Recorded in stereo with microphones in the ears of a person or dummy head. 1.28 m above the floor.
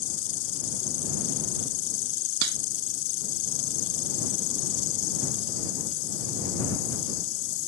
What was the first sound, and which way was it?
An insect, 70° left (ahead or behind).